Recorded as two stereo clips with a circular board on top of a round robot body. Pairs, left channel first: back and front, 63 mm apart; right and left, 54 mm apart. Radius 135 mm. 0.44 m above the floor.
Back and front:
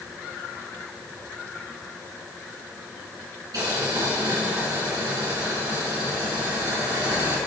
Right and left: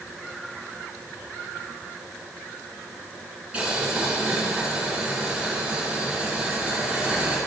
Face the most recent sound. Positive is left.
turn(degrees=20)